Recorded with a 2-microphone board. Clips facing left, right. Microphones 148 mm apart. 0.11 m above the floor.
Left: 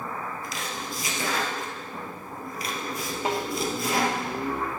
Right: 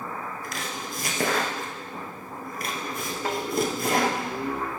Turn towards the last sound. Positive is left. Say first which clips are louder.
# left 2 dB
turn(degrees=15)  # may be behind; listen again after turning